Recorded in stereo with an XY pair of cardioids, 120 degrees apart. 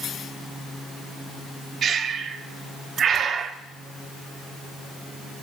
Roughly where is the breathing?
Ahead right.